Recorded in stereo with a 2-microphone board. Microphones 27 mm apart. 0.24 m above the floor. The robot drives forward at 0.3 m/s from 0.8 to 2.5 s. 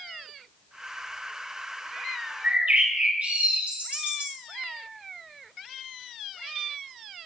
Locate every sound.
2.4 s a bird: 75° right (ahead or behind), 3.5 m